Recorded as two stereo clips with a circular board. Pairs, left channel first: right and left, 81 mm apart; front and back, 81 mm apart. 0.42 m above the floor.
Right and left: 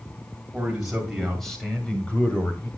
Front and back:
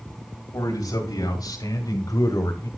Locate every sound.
0.5 s a man speaking: 15° left, 2 m; by 2.7 s 30° right, 2 m